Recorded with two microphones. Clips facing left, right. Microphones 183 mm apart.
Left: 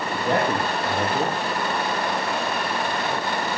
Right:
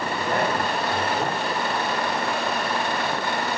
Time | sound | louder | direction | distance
0.1 | a man speaking | left 3 dB | 80° left | 9.5 m